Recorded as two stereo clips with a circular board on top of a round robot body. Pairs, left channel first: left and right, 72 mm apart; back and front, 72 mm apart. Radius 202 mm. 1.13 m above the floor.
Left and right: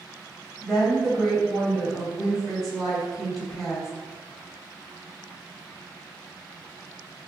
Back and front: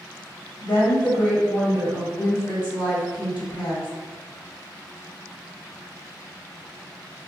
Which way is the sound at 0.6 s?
Straight behind.